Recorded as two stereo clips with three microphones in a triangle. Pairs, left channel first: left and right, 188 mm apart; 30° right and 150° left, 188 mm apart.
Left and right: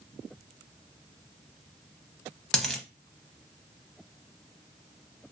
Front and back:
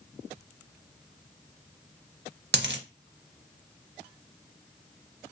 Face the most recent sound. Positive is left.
turn(degrees=175)